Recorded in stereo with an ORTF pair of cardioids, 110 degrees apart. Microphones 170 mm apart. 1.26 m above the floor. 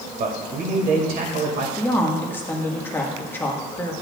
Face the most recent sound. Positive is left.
turn(degrees=10)